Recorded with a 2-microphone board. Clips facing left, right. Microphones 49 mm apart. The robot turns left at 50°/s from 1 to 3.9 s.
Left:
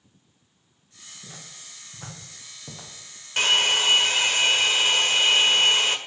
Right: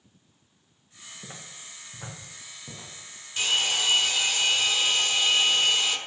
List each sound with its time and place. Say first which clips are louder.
1.2 s footsteps: right 1 dB; 45° right (ahead or behind), 8 m; by 2.9 s 30° left (ahead or behind), 7 m
3.4 s a hair dryer: left 5 dB; 65° left (ahead or behind), 1.6 m; by 6.0 s 55° left (ahead or behind), 1.6 m